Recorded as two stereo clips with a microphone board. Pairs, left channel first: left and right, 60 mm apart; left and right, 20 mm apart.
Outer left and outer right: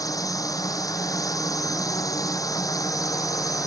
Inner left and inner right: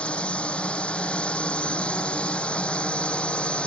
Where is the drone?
75° left (ahead or behind); by 3.7 s 70° left (ahead or behind).